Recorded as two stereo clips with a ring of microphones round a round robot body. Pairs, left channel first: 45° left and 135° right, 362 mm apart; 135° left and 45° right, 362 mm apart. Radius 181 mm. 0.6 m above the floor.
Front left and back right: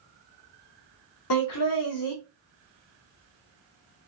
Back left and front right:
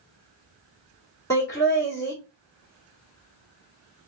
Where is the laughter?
55° left, 1.6 m.